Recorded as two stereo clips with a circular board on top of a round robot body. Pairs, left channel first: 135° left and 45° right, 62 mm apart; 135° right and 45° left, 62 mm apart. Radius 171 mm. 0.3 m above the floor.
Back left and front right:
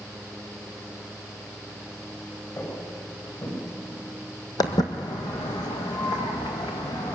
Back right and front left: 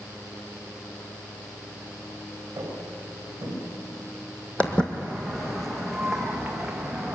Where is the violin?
I don't hear a violin.